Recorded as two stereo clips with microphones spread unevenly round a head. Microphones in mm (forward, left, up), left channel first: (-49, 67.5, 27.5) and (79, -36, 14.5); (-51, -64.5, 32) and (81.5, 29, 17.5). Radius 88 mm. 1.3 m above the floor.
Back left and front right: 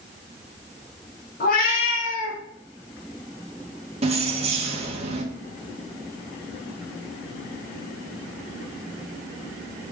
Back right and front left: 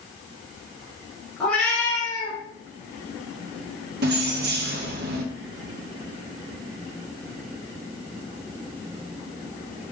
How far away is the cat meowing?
About 1.6 m.